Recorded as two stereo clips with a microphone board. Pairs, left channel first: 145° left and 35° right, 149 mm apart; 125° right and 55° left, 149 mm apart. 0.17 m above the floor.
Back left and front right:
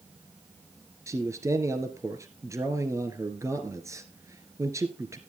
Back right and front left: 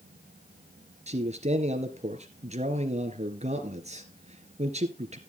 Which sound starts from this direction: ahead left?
A man speaking, at 1.1 s.